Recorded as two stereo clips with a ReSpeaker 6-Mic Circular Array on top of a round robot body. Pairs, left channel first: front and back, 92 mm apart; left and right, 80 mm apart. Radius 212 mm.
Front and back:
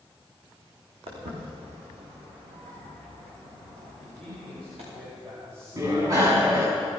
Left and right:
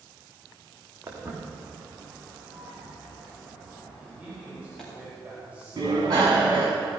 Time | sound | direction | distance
1.1 | footsteps | 155° right | 4 m
4.0 | a man speaking | 160° right | 4.5 m
5.8 | a bicycle bell | 130° right | 6 m